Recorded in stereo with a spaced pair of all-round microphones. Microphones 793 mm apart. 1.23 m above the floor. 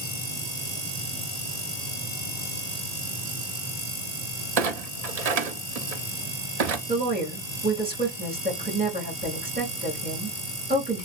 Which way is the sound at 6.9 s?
10° right (ahead or behind).